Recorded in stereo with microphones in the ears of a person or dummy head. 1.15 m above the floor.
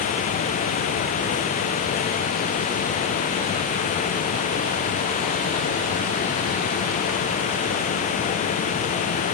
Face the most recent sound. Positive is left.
No sound to turn to.